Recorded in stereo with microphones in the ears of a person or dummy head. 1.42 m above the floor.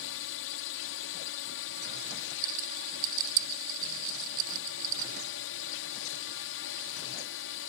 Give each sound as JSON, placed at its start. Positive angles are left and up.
{"t": 0.0, "sound": "a drone", "side_deg": 65}
{"t": 2.4, "sound": "a rattle", "side_deg": -50}